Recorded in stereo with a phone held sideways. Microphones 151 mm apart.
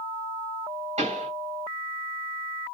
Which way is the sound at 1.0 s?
45° right (ahead or behind).